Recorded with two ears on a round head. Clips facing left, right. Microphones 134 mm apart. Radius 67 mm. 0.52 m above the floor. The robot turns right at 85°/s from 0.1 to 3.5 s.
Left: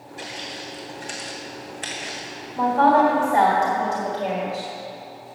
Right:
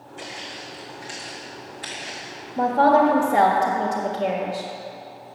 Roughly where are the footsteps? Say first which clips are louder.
Left 2 dB; centre.